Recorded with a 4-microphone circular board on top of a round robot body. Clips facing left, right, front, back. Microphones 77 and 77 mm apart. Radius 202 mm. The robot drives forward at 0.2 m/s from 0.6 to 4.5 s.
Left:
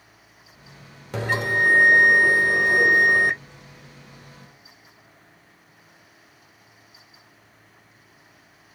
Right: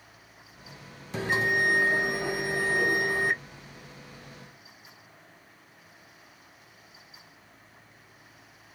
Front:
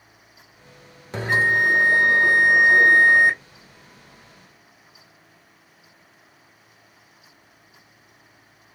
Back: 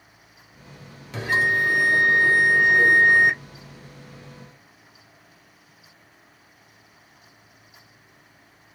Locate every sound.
1.1 s a bell: 60° left, 1.1 m; by 3.4 s 80° left, 0.9 m